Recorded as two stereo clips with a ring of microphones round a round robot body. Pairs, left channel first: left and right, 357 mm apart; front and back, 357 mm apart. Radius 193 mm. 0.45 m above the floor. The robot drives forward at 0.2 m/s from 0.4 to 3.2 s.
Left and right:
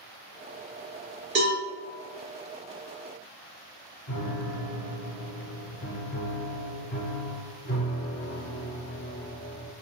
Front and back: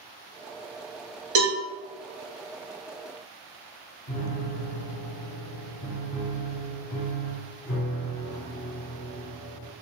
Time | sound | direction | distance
1.4 | a cowbell | 155° right | 1.6 m
4.1 | a piano | 50° left | 0.9 m